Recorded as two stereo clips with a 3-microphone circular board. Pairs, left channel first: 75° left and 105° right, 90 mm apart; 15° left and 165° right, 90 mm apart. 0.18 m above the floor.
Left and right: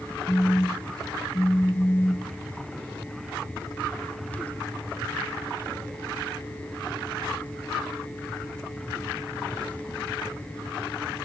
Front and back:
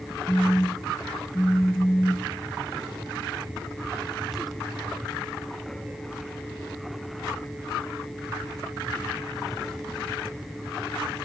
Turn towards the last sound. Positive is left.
turn(degrees=65)